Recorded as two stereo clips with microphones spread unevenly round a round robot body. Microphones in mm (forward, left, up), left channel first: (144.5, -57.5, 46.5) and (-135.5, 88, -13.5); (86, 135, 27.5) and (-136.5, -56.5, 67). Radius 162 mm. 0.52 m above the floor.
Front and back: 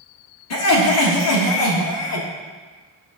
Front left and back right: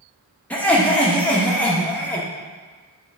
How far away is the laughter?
About 1.6 m.